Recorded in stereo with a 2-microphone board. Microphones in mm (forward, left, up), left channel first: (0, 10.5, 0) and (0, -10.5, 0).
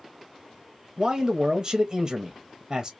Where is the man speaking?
30° right (ahead or behind), 0.6 m.